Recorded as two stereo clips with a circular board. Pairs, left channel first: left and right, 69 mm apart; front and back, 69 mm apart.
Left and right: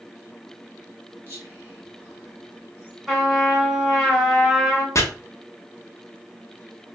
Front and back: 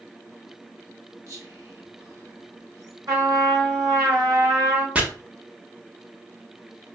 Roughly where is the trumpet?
Behind.